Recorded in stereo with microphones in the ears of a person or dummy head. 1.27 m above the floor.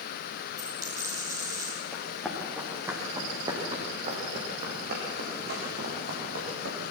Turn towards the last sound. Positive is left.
turn(degrees=-70)  # may be behind; listen again after turning